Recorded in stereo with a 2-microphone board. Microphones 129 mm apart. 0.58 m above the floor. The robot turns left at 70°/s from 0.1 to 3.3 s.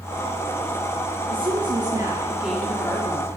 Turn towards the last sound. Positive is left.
turn(degrees=130)